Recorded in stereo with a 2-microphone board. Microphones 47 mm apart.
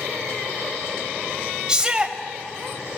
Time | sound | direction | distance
1.7 | a shout | 20° right (ahead or behind) | 1.0 m